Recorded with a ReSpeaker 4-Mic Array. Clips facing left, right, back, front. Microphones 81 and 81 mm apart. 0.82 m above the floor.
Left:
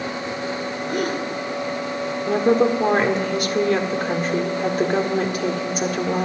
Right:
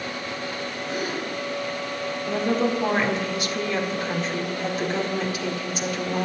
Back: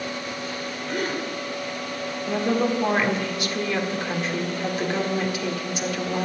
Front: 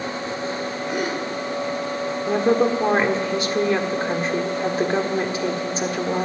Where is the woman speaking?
55° left, 1.8 m.